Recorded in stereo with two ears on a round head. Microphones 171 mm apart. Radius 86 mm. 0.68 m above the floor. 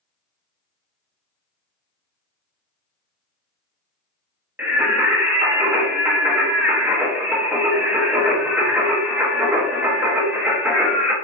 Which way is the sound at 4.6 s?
10° right (ahead or behind).